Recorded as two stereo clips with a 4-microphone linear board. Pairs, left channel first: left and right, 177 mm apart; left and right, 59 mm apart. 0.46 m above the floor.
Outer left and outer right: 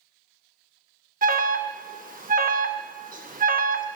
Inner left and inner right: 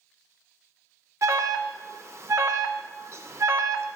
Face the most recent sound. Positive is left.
turn(degrees=-50)  # may be behind; listen again after turning